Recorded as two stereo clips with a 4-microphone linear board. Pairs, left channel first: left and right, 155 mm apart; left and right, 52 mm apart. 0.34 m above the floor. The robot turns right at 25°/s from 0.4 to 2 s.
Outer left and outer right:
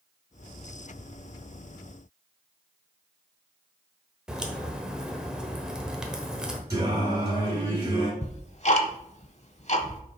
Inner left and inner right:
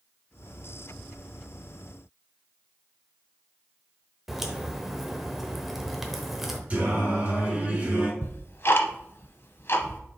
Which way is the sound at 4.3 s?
5° right (ahead or behind).